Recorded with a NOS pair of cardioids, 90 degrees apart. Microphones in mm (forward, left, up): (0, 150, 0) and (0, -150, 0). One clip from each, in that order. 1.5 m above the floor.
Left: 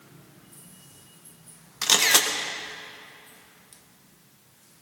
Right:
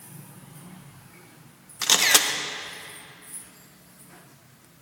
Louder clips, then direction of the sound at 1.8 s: Even; 5° right.